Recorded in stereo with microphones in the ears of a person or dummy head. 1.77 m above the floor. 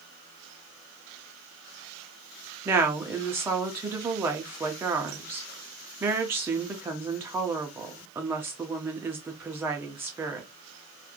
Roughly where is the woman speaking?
Centre.